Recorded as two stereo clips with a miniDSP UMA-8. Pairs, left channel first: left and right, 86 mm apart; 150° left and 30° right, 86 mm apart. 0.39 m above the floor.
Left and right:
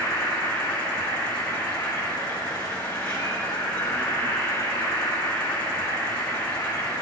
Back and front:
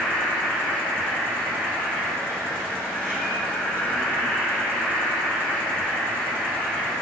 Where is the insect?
20° left, 2.5 m.